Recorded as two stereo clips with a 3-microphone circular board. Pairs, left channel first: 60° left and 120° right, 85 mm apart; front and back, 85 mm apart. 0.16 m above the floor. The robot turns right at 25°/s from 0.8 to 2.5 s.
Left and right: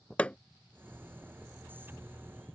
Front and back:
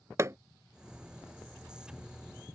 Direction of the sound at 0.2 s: 135° left.